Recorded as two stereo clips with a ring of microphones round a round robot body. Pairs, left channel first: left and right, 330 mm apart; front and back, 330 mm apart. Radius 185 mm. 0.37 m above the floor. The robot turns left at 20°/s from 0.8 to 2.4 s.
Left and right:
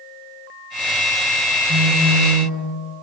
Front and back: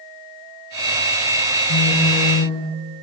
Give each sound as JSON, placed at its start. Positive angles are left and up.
{"t": 1.7, "sound": "a phone buzzing", "azimuth_deg": -45, "distance_m": 6.0}